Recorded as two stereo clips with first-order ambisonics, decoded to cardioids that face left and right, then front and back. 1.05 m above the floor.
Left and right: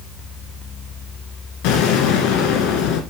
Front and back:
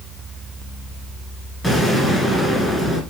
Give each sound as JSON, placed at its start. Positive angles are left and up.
{"t": 1.6, "sound": "an explosion", "azimuth_deg": 80, "distance_m": 2.0}